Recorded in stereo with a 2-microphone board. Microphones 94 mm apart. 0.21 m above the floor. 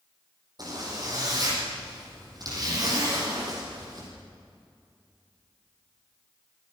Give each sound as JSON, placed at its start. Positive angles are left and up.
{"t": 0.6, "sound": "a zipper", "side_deg": -45, "distance_m": 9.0}